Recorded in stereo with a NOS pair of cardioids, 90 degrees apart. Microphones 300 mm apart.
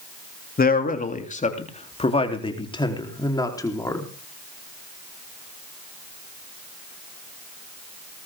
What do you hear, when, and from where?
0.6 s a man speaking: 30° left, 3 m; by 4.0 s 10° left, 4.5 m